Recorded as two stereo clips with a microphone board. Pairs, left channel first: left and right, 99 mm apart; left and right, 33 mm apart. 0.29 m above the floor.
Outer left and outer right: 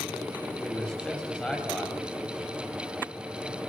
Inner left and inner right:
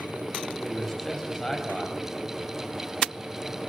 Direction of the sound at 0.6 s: 10° left (ahead or behind).